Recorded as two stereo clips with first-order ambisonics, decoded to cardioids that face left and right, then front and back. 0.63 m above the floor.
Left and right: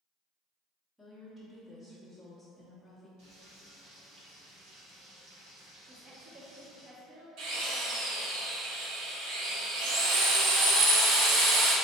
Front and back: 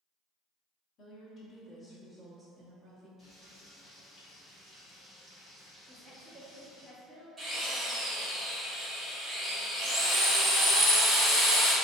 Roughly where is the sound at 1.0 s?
Ahead.